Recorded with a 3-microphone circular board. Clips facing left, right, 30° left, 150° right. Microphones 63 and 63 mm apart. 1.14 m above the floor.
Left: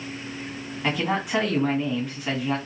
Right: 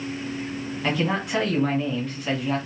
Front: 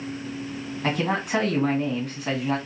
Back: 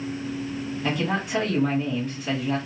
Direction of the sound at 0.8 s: 5° left.